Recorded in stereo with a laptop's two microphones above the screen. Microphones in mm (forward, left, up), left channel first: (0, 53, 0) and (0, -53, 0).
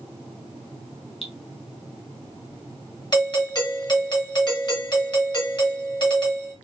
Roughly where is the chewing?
No chewing in this recording.